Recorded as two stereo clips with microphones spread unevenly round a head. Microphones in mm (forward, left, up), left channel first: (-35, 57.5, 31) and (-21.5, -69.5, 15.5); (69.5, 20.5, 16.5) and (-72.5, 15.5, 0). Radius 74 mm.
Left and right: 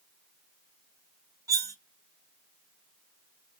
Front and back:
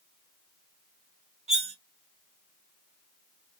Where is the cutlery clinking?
145° right, 1.0 m.